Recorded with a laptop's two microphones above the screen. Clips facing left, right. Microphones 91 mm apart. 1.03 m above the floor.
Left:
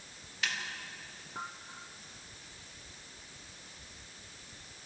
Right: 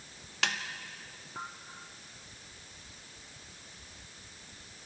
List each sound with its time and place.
0.4 s a snare drum: 75° right (ahead or behind), 1.8 m